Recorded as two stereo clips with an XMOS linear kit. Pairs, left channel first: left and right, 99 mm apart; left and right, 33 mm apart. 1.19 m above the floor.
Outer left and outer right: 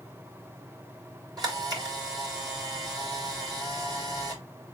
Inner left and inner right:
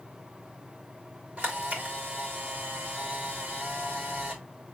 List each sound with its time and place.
1.4 s a camera shutter: 40° right (ahead or behind), 2.5 m